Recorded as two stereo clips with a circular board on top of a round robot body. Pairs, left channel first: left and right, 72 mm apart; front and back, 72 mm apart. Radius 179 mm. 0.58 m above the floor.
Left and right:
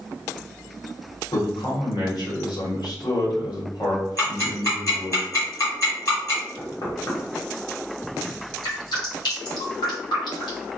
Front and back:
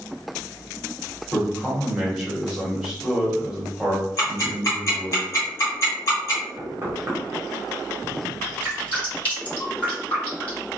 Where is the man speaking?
95° left, 1.9 m.